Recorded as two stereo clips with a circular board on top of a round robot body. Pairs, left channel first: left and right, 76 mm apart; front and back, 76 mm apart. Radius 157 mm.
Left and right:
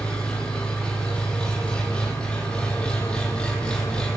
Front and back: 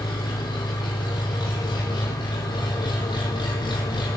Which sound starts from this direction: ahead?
An engine running, at 0.0 s.